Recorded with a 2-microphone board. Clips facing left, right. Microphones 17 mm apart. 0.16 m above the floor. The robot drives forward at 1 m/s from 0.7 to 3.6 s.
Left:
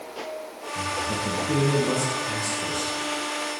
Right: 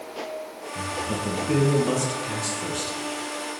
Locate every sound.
0.8 s a man speaking: 15° right (ahead or behind), 3 m; by 3.0 s 10° right (ahead or behind), 5 m